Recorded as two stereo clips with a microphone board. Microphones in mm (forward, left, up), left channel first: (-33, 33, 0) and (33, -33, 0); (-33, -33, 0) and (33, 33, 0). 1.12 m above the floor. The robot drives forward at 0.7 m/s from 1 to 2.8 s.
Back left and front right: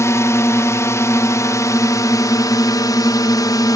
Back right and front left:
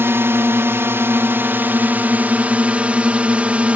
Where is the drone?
95° left; by 3.8 s 115° left.